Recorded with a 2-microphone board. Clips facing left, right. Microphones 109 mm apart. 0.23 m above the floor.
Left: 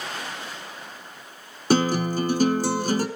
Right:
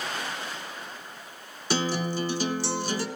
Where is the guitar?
50° left (ahead or behind), 1.4 m.